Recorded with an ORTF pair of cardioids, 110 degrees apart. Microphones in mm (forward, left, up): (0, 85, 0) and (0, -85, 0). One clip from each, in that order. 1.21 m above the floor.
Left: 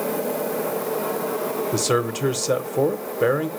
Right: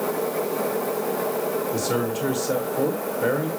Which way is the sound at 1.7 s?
60° left.